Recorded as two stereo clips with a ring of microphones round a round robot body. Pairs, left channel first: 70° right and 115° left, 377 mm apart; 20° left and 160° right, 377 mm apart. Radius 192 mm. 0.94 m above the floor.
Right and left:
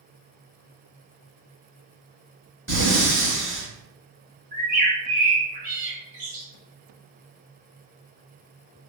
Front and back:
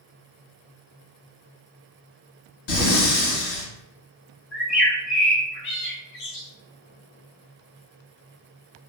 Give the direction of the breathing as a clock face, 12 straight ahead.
11 o'clock.